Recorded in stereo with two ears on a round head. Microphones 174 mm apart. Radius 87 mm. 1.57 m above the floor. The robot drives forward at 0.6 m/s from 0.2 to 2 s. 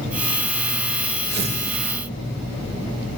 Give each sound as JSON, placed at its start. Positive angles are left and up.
{"t": 1.3, "sound": "tearing paper", "side_deg": -60, "distance_m": 2.5}